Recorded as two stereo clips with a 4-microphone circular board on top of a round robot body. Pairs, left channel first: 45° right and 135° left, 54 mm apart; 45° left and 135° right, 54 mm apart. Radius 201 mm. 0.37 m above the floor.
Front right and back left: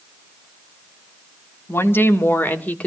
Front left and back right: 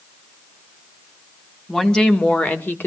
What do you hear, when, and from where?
1.7 s a woman speaking: 35° right, 1.9 m; by 2.9 s 10° left, 2 m